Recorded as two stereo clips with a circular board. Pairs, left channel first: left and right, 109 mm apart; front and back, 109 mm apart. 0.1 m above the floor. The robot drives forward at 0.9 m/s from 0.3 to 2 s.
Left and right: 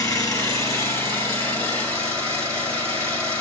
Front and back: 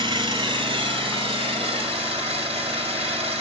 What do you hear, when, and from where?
0.0 s an engine running: 140° left, 2.5 m; by 3.4 s 160° left, 3.5 m